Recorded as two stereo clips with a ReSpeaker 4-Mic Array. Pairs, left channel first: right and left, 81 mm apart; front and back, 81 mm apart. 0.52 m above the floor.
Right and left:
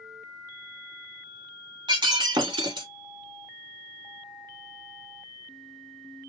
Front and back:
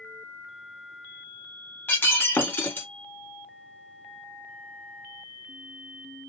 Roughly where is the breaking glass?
Ahead left.